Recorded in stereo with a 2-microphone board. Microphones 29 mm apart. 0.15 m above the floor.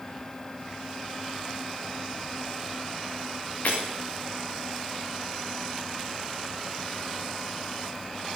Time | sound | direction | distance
3.6 | breaking glass | 60° left (ahead or behind) | 6.5 m